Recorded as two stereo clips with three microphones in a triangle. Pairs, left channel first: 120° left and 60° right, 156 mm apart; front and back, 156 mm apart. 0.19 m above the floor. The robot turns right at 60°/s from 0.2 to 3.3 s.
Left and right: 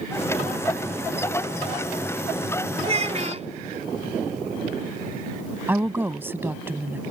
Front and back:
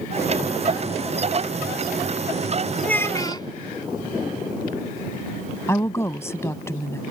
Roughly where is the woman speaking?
Ahead.